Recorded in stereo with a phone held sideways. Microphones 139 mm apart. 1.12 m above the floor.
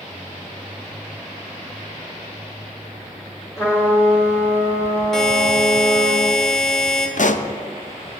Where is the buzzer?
5° left (ahead or behind), 1.4 m.